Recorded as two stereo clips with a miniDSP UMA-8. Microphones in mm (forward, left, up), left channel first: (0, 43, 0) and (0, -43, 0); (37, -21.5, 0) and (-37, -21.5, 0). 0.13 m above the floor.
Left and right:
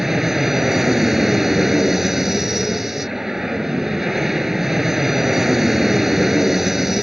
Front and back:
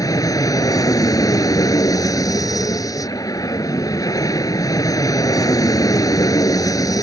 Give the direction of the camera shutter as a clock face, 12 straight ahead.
I don't hear a camera shutter.